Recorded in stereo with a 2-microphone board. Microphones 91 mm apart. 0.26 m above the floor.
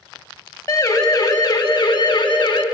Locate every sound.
0.7 s a siren: 30° left (ahead or behind), 2 m; by 2.6 s 55° left (ahead or behind), 3.5 m